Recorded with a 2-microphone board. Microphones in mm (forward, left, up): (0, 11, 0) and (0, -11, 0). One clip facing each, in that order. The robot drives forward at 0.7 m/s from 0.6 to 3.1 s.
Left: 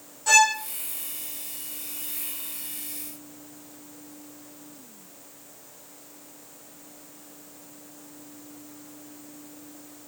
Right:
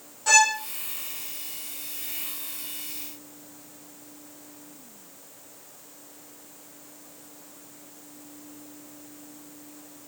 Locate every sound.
0.3 s a violin: 15° right (ahead or behind), 2 m